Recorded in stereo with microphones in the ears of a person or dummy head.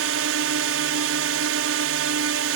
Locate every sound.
0.0 s a drone: 65° right (ahead or behind)